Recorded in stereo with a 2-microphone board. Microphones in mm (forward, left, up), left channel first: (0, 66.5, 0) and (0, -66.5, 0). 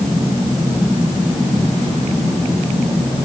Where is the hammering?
No hammering in this recording.